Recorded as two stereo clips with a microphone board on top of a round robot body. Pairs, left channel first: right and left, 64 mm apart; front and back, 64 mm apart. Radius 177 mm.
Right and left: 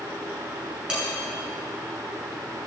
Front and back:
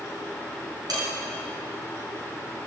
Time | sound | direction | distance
0.9 | dishes clattering | 170° left | 6.5 m